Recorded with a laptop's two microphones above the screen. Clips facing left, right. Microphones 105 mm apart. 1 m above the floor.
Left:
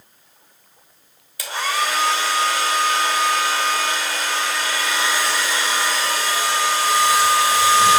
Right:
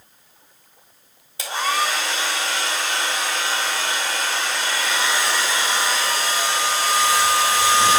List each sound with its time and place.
1.4 s a hair dryer: 25° right (ahead or behind), 2.0 m